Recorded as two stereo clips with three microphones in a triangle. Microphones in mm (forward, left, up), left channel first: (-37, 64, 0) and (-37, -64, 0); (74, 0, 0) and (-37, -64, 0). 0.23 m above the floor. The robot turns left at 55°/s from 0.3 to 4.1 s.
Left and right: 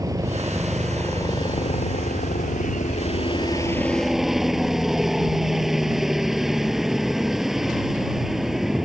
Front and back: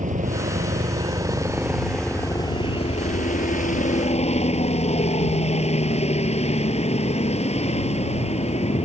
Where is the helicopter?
155° right; by 8.8 s straight ahead.